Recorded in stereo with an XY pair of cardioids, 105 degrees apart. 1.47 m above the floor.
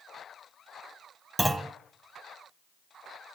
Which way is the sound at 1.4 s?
10° right.